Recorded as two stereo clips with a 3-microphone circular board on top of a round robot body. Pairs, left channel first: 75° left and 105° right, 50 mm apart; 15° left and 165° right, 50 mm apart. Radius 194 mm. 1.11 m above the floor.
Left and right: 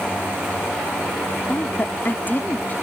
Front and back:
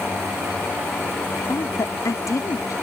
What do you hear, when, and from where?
1.5 s a woman speaking: 20° left